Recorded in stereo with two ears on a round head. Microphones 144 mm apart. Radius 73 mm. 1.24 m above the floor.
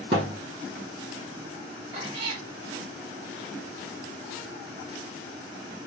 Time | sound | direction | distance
0.1 | a thud | 40° right (ahead or behind) | 1.4 m
1.9 | a cat meowing | 35° right (ahead or behind) | 0.9 m